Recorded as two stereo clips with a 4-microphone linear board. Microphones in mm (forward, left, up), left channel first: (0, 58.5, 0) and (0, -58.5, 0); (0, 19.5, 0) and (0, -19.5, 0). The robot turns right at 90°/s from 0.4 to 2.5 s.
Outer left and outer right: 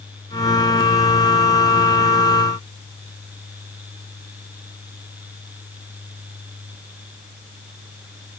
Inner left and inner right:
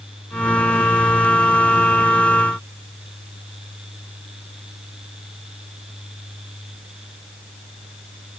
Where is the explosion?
I don't hear an explosion.